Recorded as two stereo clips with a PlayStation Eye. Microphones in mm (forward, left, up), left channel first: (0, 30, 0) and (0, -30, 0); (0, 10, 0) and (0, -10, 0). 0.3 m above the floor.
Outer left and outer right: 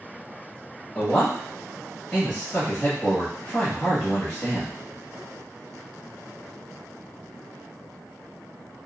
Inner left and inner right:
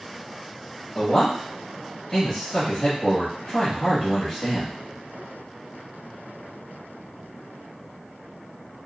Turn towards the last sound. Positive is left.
turn(degrees=20)  # may be behind; listen again after turning